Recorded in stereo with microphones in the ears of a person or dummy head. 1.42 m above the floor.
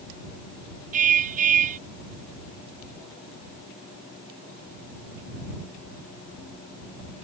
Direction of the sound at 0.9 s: 40° right (ahead or behind).